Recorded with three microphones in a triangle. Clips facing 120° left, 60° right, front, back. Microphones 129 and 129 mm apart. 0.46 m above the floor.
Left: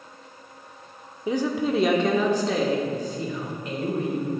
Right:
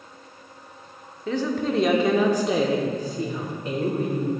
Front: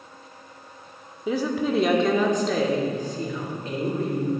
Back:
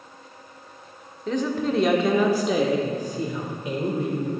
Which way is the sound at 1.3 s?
70° left.